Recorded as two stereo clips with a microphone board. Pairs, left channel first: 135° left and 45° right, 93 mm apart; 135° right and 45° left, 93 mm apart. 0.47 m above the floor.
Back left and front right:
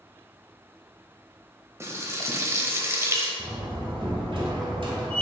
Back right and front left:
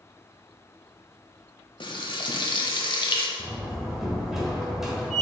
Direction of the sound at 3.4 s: 40° right.